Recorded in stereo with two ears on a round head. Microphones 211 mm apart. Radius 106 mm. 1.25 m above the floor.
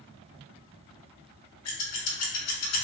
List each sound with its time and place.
1.6 s scissors: 70° left (ahead or behind), 0.8 m